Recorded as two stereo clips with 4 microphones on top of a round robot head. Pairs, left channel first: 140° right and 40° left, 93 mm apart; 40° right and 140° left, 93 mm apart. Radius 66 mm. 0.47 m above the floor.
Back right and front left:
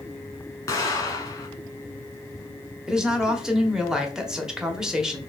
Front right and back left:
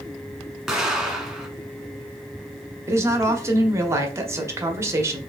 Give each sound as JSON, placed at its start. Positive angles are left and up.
{"t": 0.7, "sound": "an explosion", "azimuth_deg": -135, "distance_m": 1.2}
{"t": 2.9, "sound": "a woman speaking", "azimuth_deg": 120, "distance_m": 0.9}